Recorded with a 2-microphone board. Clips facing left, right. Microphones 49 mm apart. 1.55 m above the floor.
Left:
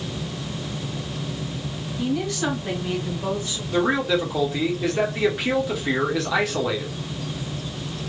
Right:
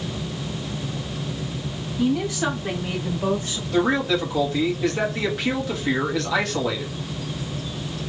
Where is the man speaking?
5° left (ahead or behind), 2.5 m.